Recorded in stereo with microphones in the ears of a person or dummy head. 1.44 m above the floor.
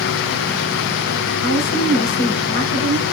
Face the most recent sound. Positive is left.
turn(degrees=75)  # may be behind; listen again after turning